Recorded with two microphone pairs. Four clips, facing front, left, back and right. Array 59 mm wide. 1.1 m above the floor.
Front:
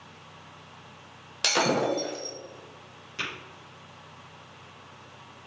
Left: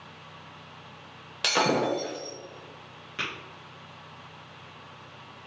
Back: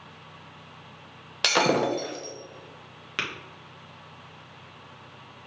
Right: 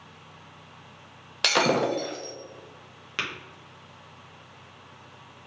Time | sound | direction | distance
1.4 | breaking glass | 120° right | 1.0 m
3.2 | tapping | 150° right | 1.5 m